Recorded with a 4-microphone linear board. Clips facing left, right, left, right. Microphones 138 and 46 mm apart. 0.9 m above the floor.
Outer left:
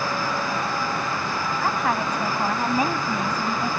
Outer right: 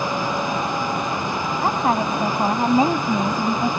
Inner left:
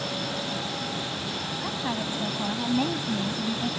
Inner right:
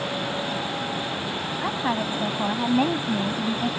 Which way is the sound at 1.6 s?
30° right (ahead or behind).